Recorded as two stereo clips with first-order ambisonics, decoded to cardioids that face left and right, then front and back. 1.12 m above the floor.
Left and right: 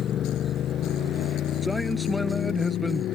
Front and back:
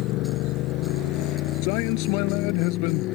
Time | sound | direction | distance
0.0 | a motorcycle | 35° left | ?
1.6 | a man speaking | 5° left | ?